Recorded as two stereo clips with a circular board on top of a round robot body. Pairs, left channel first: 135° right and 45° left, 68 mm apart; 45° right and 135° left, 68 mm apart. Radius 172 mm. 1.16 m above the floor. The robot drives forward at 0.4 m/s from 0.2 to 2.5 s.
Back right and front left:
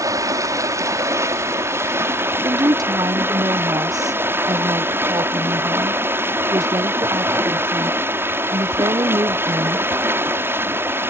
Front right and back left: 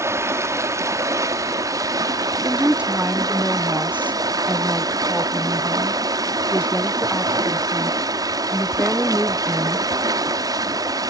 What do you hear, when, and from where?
0.0 s running water: 85° left; by 11.1 s 105° left
2.4 s a woman speaking: 65° left